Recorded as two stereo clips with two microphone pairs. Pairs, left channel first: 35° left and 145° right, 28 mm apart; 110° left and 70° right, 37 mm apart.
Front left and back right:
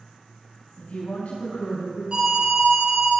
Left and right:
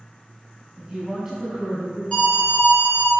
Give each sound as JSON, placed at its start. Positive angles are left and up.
{"t": 0.8, "sound": "a woman speaking", "azimuth_deg": 15, "distance_m": 4.5}
{"t": 2.1, "sound": "an alarm", "azimuth_deg": 165, "distance_m": 4.5}